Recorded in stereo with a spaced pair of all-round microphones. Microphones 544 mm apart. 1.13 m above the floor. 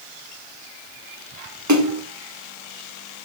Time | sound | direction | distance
1.7 | a splash | 30° right (ahead or behind) | 1.0 m